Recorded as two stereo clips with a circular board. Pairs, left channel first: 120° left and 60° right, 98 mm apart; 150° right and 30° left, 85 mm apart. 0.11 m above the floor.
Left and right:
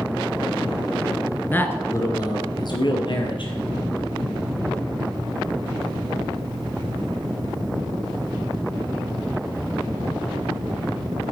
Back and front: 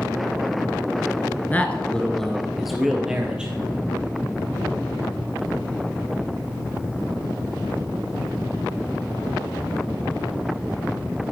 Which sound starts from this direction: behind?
A man speaking, at 1.5 s.